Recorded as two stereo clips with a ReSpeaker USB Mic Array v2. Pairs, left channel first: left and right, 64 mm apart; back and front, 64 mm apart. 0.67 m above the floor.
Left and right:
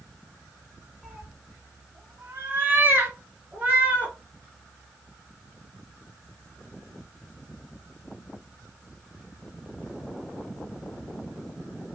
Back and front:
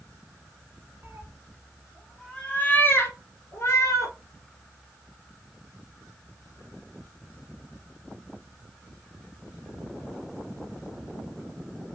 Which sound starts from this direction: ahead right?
A cat meowing, at 1.0 s.